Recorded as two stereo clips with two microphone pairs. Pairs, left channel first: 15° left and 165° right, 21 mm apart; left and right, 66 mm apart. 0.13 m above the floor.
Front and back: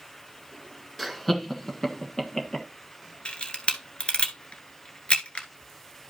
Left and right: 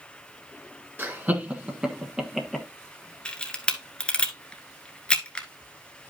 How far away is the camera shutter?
About 1.2 m.